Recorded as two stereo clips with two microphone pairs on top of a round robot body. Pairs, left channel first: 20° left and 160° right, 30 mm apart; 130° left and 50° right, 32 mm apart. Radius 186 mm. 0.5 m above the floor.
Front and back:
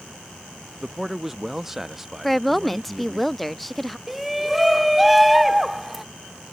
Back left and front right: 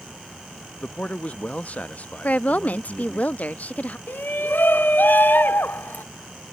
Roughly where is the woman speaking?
Behind left.